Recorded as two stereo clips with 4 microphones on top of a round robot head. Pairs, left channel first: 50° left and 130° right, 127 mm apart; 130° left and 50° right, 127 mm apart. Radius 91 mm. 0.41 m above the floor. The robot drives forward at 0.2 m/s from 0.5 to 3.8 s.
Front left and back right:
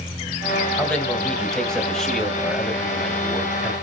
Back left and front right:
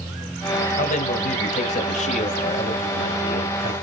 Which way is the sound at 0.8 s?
135° left.